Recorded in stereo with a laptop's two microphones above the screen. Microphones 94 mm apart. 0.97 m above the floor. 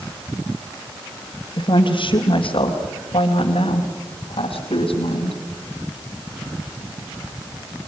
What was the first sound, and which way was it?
A woman speaking, 65° left (ahead or behind).